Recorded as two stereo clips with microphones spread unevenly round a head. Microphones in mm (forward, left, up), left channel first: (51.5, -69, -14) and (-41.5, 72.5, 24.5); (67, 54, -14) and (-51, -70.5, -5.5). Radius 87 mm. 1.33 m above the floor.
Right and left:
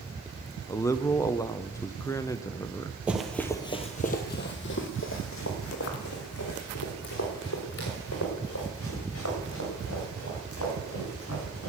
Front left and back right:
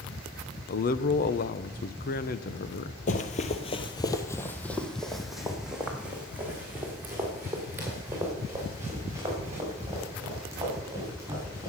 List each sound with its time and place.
0.7 s a man speaking: 10° left, 0.8 m
3.1 s running footsteps: 65° left, 1.6 m; by 11.7 s 60° right, 11 m